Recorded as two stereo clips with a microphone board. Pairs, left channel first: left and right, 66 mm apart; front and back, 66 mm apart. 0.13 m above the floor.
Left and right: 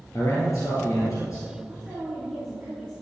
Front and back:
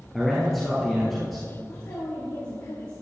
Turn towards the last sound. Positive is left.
turn(degrees=10)